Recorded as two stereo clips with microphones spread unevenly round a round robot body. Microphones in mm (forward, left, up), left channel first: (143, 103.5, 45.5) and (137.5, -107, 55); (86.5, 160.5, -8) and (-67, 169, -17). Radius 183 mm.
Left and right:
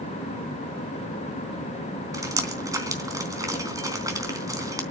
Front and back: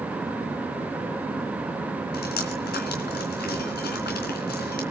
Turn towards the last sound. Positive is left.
turn(degrees=-15)